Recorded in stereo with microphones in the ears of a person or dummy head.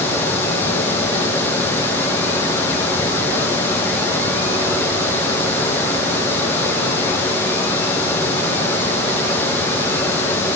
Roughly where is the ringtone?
No ringtone in this recording.